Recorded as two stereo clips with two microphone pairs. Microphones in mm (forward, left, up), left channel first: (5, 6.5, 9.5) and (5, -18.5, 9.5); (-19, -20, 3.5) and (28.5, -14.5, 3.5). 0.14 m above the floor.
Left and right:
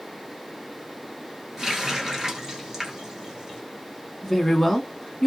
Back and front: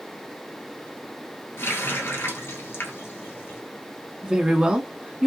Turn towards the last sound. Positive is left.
turn(degrees=30)